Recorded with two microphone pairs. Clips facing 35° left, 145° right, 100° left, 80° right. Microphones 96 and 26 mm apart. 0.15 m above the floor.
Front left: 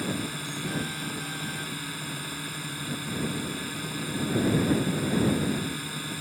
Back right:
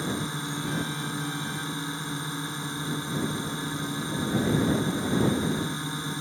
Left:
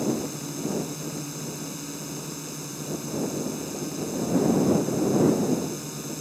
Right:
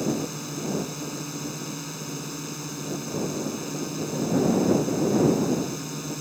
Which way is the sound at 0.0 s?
140° right.